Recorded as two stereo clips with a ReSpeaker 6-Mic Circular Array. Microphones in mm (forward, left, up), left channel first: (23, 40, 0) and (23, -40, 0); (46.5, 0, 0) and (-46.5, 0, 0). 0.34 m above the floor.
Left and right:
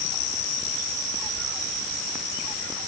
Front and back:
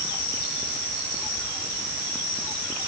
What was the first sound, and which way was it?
Only background noise.